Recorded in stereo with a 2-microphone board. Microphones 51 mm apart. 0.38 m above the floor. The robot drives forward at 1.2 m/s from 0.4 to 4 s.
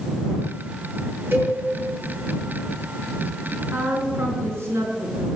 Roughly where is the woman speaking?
Right.